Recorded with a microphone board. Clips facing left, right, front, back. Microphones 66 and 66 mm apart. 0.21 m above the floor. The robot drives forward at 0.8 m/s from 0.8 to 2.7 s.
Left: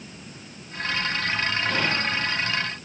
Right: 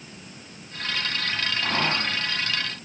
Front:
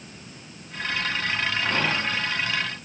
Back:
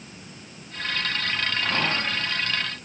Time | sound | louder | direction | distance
1.6 | whispering | left 1 dB, even | 85° right | 1.7 m